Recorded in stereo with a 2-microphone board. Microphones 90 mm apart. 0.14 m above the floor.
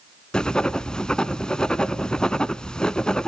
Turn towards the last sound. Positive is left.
turn(degrees=10)  # may be behind; listen again after turning